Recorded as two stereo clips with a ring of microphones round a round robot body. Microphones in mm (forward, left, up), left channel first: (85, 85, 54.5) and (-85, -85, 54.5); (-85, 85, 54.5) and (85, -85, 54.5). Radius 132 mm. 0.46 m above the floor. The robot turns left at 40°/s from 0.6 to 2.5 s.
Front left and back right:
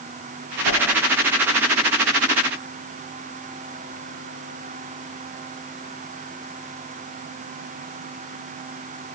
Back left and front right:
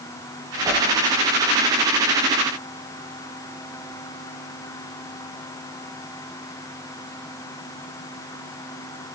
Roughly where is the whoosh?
Ahead left.